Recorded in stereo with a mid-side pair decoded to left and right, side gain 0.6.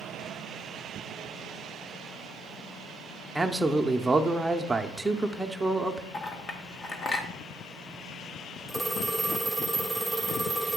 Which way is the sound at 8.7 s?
10° left.